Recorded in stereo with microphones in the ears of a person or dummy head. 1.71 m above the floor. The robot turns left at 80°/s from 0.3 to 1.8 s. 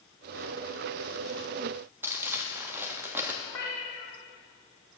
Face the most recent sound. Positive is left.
turn(degrees=5)  # may be behind; listen again after turning